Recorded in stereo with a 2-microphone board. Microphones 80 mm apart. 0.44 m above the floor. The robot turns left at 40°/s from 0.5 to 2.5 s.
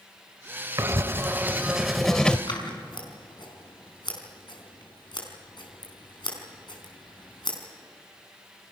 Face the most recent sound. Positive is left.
turn(degrees=65)  # may be behind; listen again after turning